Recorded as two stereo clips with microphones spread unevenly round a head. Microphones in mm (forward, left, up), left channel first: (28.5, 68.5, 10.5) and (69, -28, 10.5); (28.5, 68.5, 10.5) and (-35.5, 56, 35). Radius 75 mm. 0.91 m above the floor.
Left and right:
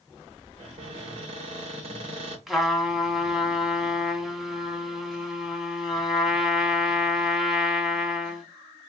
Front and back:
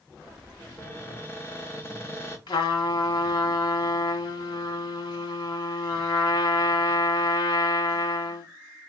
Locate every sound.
0.6 s a cupboard door: 50° right, 2.5 m
2.5 s a trumpet: 20° left, 1.4 m